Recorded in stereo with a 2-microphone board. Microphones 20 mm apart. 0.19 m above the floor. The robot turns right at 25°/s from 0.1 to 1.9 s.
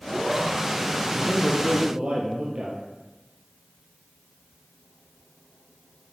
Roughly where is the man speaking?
Right.